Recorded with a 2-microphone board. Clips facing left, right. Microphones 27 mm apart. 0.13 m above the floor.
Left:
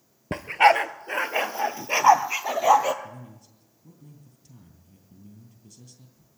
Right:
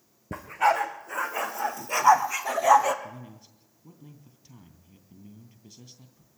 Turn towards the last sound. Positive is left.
turn(degrees=-30)  # may be behind; listen again after turning